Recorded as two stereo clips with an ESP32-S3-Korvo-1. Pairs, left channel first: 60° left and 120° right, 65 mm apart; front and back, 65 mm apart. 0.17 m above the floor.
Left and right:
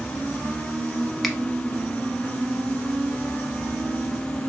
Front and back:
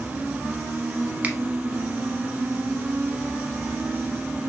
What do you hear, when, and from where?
1.2 s a finger snap: 145° left, 0.9 m